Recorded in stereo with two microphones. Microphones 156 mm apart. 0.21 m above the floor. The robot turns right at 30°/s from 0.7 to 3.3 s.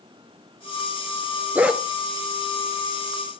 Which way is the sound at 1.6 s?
10° right (ahead or behind).